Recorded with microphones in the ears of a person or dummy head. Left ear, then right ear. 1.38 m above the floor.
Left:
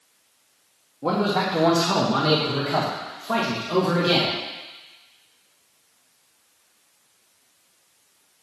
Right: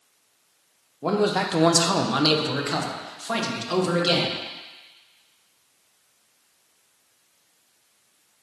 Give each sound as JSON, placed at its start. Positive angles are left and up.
{"t": 1.0, "sound": "a man speaking", "side_deg": -30, "distance_m": 0.6}